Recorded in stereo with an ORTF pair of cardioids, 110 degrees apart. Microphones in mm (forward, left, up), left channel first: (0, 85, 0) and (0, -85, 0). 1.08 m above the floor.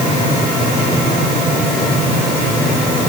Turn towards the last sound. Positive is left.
No sound to turn to.